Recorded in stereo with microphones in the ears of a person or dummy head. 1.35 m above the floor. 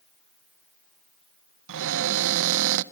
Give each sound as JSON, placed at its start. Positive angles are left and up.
{"t": 1.7, "sound": "a cupboard door", "side_deg": -70, "distance_m": 0.6}